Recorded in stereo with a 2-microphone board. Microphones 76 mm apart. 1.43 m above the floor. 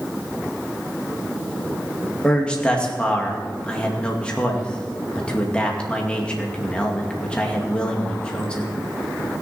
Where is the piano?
No piano in this recording.